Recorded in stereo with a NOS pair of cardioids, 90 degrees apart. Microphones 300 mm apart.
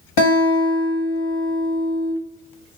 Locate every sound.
0.2 s a guitar: 60° left, 1.1 m